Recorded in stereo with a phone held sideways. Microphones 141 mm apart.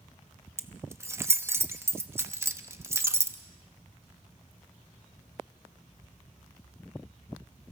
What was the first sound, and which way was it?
Keys jangling, 20° right (ahead or behind).